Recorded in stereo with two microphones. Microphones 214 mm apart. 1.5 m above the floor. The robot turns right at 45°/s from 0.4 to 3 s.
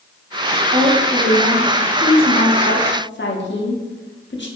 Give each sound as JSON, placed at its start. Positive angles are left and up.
{"t": 0.7, "sound": "a woman speaking", "azimuth_deg": -40, "distance_m": 0.6}